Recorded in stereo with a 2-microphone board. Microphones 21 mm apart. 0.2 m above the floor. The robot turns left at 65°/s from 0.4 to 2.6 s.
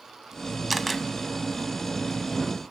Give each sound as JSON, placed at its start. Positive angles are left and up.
{"t": 0.7, "sound": "a camera shutter", "side_deg": -5, "distance_m": 0.7}